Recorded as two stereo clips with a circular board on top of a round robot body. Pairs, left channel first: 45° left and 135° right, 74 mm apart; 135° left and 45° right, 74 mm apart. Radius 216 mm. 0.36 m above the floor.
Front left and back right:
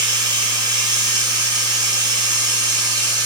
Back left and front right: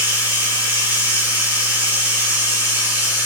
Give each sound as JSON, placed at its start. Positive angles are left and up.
{"t": 0.0, "sound": "running water", "azimuth_deg": -105, "distance_m": 5.0}